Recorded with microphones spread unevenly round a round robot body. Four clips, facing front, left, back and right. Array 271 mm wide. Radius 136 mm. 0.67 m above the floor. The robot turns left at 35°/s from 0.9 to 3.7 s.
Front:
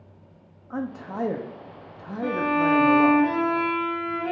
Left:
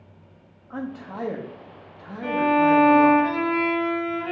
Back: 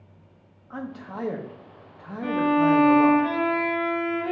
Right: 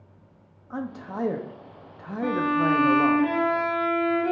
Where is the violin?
40° right, 0.9 m; by 4.3 s 90° right, 0.9 m.